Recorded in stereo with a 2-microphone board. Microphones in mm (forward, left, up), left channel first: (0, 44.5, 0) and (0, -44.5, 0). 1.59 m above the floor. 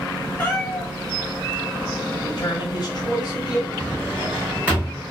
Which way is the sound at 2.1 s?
50° left (ahead or behind).